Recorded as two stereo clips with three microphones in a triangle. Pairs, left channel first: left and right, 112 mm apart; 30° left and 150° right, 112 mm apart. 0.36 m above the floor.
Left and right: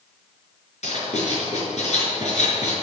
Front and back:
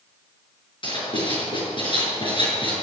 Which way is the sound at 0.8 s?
75° left.